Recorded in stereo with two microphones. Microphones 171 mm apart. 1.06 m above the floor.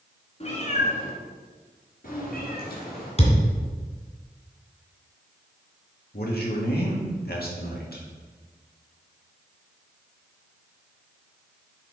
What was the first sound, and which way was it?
A cat meowing, 40° left (ahead or behind).